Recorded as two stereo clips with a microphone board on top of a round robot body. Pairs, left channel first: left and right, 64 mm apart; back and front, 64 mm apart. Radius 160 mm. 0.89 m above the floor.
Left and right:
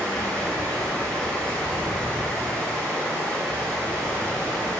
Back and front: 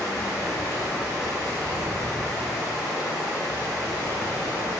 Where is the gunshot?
I don't hear a gunshot.